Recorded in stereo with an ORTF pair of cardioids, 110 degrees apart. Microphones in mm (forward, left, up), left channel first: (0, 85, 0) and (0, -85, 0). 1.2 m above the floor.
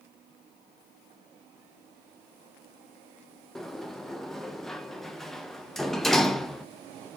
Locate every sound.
3.5 s a sliding door: straight ahead, 0.9 m